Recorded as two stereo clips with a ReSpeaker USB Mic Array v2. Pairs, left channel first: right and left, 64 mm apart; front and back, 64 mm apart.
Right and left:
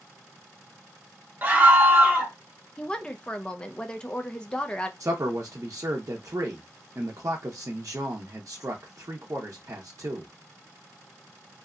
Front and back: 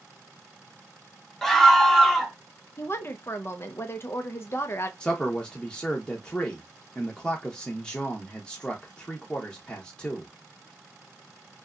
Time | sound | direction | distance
1.4 | a scream | 80° left | 0.8 m
2.8 | a woman speaking | 20° right | 0.5 m
5.0 | a man speaking | 75° left | 0.6 m